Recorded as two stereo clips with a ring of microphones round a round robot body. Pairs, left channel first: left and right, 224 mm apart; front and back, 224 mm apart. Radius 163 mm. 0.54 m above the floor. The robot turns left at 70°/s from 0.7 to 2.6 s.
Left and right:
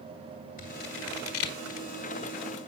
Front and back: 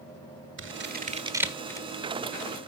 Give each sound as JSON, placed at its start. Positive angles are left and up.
{"t": 0.6, "sound": "scissors", "azimuth_deg": 150, "distance_m": 1.4}